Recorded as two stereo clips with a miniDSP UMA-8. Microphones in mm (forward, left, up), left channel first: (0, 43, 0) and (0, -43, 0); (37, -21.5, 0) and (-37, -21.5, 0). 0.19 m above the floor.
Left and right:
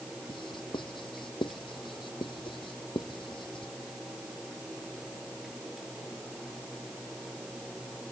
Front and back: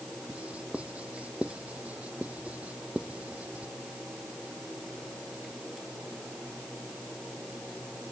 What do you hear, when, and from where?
0.3 s writing: 105° left